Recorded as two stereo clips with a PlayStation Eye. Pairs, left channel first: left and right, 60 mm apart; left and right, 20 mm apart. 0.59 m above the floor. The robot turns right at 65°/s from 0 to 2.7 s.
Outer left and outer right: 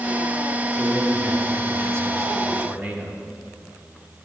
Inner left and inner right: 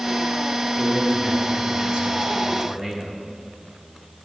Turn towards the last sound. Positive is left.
turn(degrees=-35)